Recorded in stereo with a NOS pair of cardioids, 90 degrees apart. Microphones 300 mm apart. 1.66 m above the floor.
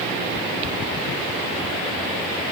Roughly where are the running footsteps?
Ahead left.